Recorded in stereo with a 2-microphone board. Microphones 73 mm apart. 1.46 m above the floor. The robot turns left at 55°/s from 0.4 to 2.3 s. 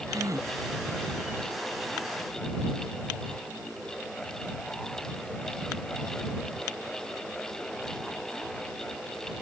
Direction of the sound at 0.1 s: 50° right (ahead or behind).